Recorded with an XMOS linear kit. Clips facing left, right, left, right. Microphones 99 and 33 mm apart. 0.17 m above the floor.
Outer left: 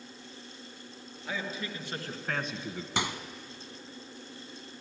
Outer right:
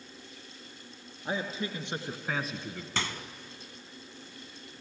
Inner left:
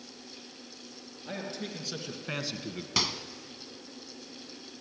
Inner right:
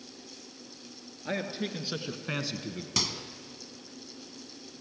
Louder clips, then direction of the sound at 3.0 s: Outer left 2 dB, inner left 2 dB; 15° left (ahead or behind).